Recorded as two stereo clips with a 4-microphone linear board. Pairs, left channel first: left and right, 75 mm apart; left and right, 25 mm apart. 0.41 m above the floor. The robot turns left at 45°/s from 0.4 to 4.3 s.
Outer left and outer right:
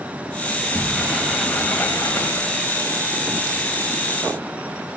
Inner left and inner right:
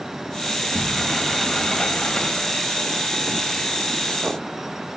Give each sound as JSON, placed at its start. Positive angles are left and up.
{"t": 0.5, "sound": "a sliding door", "azimuth_deg": -150, "distance_m": 2.5}